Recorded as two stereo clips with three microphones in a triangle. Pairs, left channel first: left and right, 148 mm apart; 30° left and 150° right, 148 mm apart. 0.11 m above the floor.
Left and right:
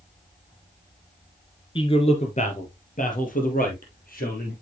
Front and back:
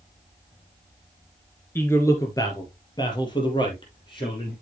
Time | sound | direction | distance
1.8 | a man speaking | 95° left | 1.5 m